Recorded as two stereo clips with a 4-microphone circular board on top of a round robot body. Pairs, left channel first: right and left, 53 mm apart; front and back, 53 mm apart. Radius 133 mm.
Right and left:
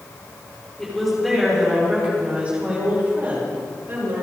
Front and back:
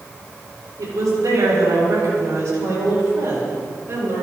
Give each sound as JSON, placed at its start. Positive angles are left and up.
{"t": 0.8, "sound": "a woman speaking", "azimuth_deg": -175, "distance_m": 4.5}